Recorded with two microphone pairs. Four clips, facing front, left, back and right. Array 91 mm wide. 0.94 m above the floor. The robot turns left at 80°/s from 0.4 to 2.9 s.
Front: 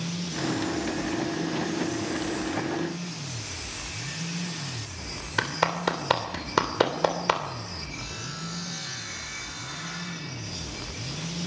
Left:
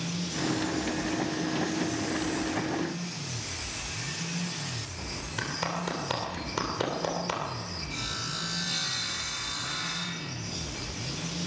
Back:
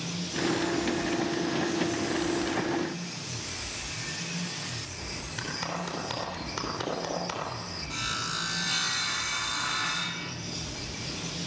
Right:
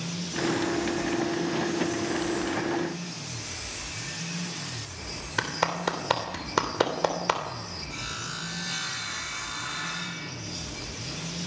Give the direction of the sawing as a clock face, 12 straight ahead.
5 o'clock.